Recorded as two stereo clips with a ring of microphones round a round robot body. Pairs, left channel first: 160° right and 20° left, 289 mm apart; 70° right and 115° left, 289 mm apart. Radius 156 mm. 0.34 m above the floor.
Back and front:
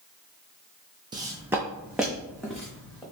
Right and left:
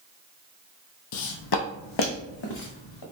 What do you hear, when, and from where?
1.1 s footsteps: 50° right, 0.6 m; by 3.0 s 70° right, 1.7 m